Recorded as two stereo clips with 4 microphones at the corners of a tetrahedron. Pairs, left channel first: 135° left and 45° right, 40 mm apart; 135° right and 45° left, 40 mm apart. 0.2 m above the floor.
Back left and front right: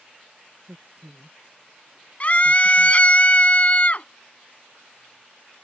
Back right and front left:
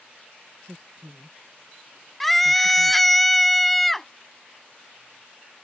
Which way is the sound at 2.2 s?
145° left.